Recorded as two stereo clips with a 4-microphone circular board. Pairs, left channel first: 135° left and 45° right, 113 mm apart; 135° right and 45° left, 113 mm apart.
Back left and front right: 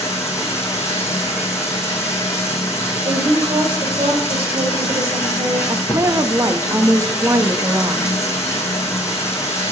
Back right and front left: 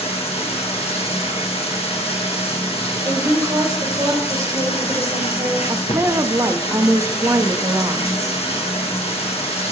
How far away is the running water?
About 3.5 m.